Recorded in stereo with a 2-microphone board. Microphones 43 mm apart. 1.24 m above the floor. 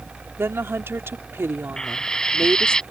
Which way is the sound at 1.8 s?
15° left (ahead or behind).